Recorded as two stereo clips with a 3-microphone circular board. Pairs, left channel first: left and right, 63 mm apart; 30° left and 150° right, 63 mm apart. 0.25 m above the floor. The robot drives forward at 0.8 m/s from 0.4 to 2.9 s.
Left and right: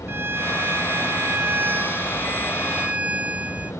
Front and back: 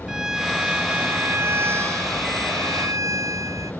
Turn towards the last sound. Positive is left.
turn(degrees=-155)